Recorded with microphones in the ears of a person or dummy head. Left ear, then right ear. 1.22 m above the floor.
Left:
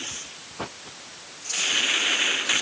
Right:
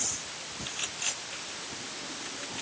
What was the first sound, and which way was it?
Only background noise.